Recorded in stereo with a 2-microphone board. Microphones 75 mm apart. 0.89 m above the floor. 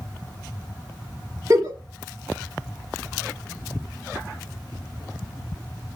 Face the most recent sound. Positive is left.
turn(degrees=-45)  # may be behind; listen again after turning